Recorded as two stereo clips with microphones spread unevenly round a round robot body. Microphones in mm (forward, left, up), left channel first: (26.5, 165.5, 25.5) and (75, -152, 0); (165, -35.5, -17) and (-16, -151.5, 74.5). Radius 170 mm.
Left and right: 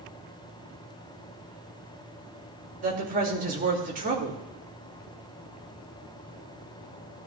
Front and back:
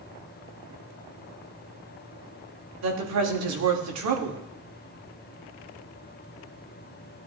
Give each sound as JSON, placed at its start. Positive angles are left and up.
{"t": 2.8, "sound": "a woman speaking", "azimuth_deg": -145, "distance_m": 2.0}